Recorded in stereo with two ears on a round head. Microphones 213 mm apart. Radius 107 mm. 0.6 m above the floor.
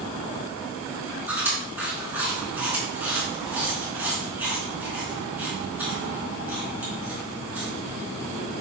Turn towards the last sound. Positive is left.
turn(degrees=-10)  # may be behind; listen again after turning